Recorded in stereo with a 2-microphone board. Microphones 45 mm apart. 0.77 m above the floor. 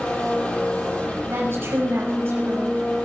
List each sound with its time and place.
0.0 s an engine running: 30° left (ahead or behind), 7 m
1.3 s a woman speaking: 65° right (ahead or behind), 5.5 m